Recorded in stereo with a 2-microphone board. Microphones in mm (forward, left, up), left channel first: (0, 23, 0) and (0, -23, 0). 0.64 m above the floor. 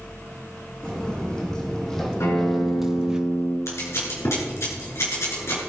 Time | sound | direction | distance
0.8 | footsteps | 20° left (ahead or behind) | 2.5 m
2.2 | a guitar | 85° left | 3.5 m
3.7 | scissors | 70° left (ahead or behind) | 3.5 m